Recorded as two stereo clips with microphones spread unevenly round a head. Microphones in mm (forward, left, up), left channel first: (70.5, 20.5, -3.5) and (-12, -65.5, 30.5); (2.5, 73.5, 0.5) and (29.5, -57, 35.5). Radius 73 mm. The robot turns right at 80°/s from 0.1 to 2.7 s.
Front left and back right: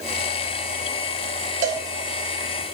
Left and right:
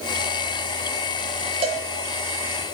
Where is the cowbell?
130° right, 0.9 m; by 1.9 s 110° right, 0.9 m.